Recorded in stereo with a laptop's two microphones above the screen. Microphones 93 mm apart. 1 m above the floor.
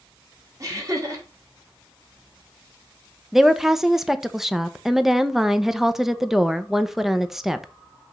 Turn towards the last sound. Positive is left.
turn(degrees=-5)  # may be behind; listen again after turning